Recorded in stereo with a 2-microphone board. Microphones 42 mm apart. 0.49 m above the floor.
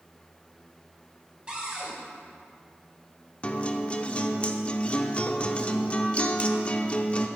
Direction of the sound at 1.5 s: 25° right (ahead or behind).